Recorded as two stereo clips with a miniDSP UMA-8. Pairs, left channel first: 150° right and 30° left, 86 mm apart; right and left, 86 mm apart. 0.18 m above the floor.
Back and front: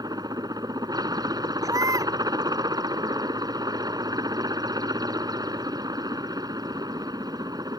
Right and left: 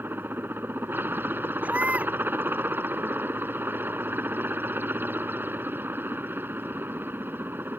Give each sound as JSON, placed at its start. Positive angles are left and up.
{"t": 0.0, "sound": "a helicopter", "azimuth_deg": 35}
{"t": 1.6, "sound": "a baby crying", "azimuth_deg": 30}